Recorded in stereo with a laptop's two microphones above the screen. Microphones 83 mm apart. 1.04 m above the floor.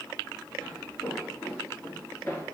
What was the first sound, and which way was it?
Footsteps, 20° left (ahead or behind).